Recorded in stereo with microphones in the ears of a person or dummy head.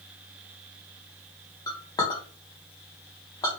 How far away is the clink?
About 0.9 m.